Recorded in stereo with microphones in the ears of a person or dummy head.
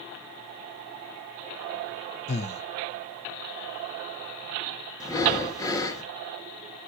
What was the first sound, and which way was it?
Breathing, 40° left (ahead or behind).